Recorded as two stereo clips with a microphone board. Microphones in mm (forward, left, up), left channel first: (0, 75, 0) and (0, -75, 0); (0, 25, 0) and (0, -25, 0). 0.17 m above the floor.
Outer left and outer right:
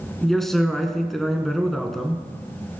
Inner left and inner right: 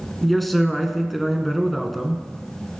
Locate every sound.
0.2 s a man speaking: centre (ahead or behind), 1.5 m